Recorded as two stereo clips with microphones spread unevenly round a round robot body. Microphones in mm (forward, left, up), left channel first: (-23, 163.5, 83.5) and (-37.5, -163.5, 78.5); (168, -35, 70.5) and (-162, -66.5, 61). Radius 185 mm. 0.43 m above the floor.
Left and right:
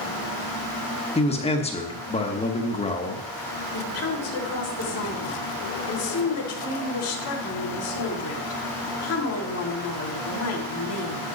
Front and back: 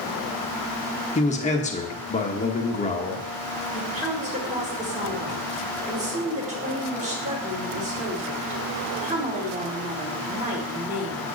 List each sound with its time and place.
1.1 s a man speaking: 45° left, 1.2 m
3.7 s a woman speaking: 120° left, 2 m